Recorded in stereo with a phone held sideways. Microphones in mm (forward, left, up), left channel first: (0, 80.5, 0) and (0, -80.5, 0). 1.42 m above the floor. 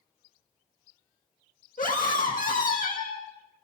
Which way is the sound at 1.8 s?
55° left (ahead or behind).